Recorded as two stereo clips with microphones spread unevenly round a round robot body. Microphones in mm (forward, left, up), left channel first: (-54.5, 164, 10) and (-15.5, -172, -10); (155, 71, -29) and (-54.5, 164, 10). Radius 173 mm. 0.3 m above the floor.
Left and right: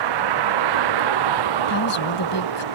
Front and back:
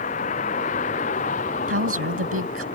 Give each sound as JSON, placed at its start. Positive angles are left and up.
{"t": 0.0, "sound": "a vehicle", "azimuth_deg": -95}
{"t": 1.7, "sound": "a woman speaking", "azimuth_deg": 135}